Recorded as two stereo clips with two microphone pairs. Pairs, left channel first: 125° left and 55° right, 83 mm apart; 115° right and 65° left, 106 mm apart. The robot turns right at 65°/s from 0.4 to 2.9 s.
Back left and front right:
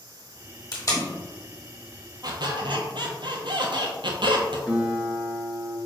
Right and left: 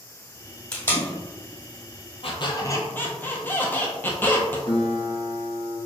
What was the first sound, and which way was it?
Tape being pulled, 170° left.